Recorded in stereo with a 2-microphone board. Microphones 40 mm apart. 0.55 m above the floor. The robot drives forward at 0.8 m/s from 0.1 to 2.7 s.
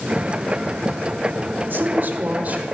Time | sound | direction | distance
1.7 | a man speaking | 55° right (ahead or behind) | 1.2 m